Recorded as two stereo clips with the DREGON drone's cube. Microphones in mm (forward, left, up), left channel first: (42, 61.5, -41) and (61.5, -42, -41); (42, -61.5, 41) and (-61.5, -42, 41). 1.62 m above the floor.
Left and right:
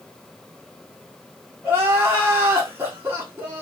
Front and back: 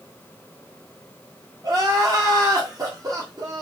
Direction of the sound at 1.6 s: 140° right.